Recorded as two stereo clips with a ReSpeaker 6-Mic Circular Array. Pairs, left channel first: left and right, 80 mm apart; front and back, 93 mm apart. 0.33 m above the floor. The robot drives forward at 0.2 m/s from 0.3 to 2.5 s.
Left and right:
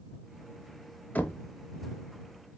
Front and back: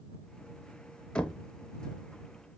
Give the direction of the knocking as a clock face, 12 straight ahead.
10 o'clock.